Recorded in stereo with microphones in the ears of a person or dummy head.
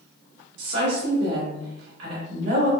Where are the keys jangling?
No keys jangling in this recording.